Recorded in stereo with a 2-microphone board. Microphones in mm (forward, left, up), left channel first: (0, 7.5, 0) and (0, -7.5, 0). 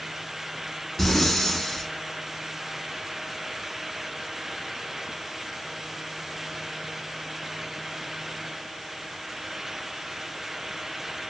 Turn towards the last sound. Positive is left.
turn(degrees=25)  # may be behind; listen again after turning